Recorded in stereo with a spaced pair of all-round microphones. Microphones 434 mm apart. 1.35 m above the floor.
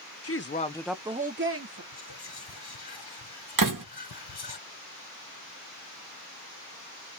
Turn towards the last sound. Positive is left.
turn(degrees=-50)  # may be behind; listen again after turning